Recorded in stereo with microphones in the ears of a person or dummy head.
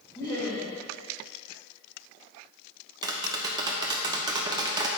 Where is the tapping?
10° right (ahead or behind), 0.6 m.